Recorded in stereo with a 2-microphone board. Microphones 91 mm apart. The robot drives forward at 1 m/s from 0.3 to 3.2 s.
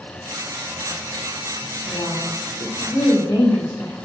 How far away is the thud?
I don't hear a thud.